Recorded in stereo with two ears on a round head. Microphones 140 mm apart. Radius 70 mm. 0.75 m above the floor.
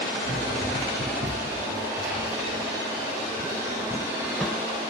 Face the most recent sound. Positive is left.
turn(degrees=15)  # may be behind; listen again after turning